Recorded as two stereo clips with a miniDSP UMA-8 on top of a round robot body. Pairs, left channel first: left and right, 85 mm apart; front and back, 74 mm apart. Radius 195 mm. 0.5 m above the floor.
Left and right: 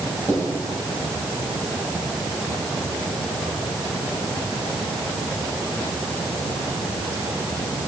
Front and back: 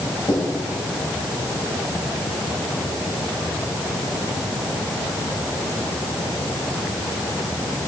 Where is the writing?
35° right, 4 m.